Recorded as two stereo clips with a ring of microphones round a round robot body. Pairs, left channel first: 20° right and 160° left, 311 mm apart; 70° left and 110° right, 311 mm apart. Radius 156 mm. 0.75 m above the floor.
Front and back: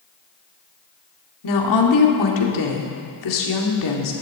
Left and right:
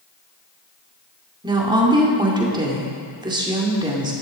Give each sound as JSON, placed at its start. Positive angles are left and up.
{"t": 1.4, "sound": "a woman speaking", "azimuth_deg": -40, "distance_m": 2.0}